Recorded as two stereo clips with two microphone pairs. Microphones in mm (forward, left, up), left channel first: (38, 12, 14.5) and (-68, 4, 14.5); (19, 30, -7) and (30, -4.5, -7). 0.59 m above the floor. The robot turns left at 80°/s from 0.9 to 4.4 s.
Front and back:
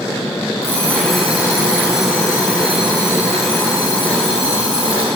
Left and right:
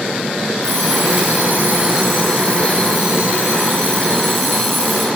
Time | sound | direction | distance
0.6 | an alarm clock | 65° right | 7.5 m